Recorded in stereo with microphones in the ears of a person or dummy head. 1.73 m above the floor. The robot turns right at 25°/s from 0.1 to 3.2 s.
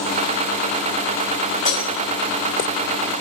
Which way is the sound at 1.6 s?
40° left (ahead or behind).